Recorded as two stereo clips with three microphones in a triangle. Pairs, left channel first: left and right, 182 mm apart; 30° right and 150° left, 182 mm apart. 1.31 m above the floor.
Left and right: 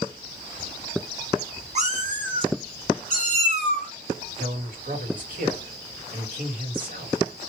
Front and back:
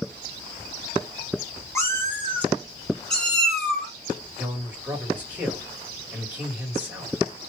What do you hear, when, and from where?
1.8 s a cat meowing: 95° right, 1.1 m; by 3.9 s 120° right, 2 m
4.4 s a man speaking: 130° right, 2.0 m